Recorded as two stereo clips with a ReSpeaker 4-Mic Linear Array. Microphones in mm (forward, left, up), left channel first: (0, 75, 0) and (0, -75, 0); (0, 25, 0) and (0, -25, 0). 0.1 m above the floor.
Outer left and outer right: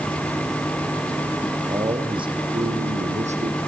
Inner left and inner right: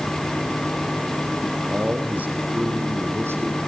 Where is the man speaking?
25° right (ahead or behind), 5 m; by 3.6 s 55° right (ahead or behind), 4.5 m.